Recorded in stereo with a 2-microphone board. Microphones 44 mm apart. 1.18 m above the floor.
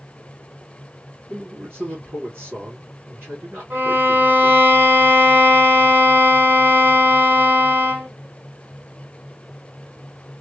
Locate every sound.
1.3 s a man speaking: 65° right (ahead or behind), 2.5 m
3.7 s a violin: 50° right (ahead or behind), 1.5 m